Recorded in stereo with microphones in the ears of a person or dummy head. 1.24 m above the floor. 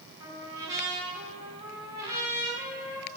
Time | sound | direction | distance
0.2 | a trumpet | 15° right (ahead or behind) | 3.5 m